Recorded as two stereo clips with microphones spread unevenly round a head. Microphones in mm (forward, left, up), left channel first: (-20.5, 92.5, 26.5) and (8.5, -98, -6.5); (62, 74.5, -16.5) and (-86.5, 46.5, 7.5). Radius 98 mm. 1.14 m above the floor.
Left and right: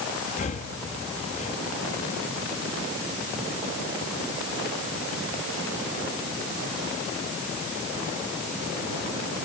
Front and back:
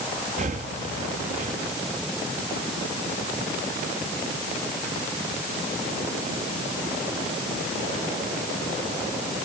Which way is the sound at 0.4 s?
155° left.